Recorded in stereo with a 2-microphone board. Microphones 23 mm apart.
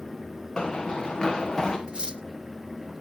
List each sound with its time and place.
0.6 s running footsteps: 25° left (ahead or behind), 3.5 m; by 1.8 s 20° left (ahead or behind), 4 m
1.9 s cutlery clinking: 45° right (ahead or behind), 1.0 m